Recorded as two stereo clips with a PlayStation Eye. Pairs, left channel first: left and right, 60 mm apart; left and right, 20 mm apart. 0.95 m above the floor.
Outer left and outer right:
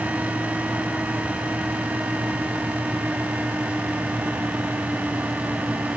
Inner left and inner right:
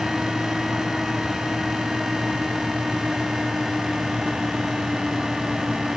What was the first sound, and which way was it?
Only background noise.